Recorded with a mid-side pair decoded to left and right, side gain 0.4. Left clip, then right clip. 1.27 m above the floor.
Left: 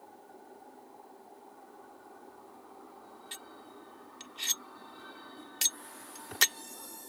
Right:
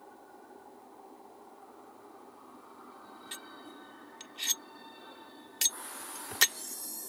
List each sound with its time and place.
3.3 s cutlery clinking: 5° right